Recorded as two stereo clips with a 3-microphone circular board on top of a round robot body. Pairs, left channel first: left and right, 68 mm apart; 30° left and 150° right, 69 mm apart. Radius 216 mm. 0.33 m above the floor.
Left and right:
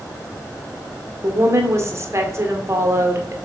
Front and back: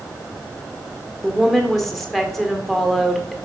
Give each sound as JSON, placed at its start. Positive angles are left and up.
{"t": 1.2, "sound": "a woman speaking", "azimuth_deg": -55, "distance_m": 1.9}